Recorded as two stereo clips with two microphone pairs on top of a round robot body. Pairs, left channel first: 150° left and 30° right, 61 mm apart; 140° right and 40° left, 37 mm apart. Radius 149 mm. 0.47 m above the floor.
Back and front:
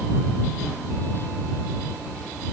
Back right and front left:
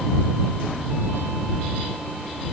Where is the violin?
I don't hear a violin.